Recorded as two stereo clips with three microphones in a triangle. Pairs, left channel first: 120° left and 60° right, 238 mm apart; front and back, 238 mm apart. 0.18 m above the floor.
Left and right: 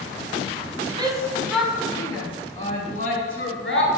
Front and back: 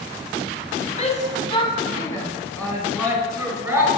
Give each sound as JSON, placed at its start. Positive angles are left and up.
{"t": 1.0, "sound": "a shout", "azimuth_deg": -10, "distance_m": 1.1}